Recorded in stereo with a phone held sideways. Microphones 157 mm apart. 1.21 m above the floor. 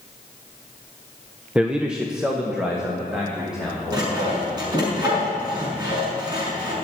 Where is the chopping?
No chopping in this recording.